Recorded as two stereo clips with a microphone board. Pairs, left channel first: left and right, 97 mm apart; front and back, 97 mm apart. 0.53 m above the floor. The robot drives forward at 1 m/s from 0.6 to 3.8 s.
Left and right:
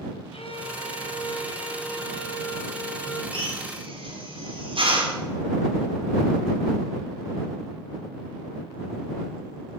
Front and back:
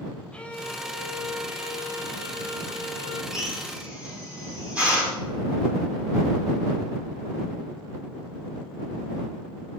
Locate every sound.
0.3 s a violin: 80° left, 1.7 m; by 3.2 s 145° left, 3 m
3.3 s a drill: 100° right, 4.5 m; by 5.2 s 105° right, 4.5 m